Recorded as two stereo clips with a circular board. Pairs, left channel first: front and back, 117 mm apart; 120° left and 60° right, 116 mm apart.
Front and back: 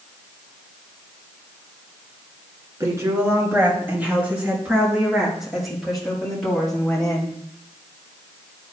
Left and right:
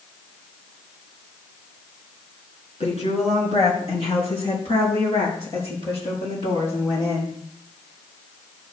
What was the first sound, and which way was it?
A woman speaking, 120° left.